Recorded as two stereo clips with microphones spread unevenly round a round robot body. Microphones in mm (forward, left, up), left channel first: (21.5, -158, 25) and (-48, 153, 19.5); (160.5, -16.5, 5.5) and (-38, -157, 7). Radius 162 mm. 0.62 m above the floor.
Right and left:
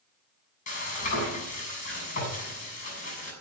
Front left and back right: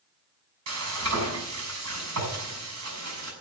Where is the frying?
145° right, 6 m.